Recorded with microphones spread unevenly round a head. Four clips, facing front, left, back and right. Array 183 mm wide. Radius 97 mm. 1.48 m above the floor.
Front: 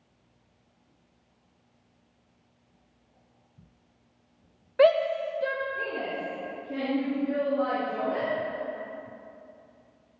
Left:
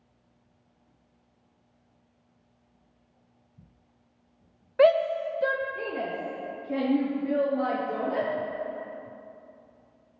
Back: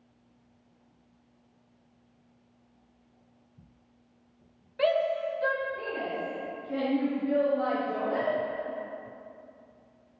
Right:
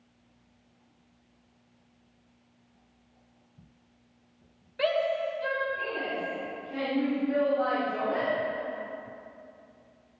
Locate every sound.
4.8 s a shout: 40° left, 1.4 m; by 8.3 s 95° left, 6 m